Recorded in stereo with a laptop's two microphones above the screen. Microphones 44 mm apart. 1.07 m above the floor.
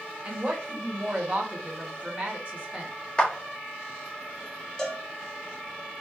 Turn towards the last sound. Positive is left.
turn(degrees=15)  # may be behind; listen again after turning